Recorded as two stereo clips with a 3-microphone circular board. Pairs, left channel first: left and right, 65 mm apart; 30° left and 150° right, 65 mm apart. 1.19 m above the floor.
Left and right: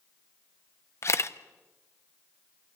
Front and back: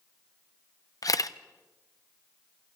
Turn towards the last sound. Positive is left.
turn(degrees=50)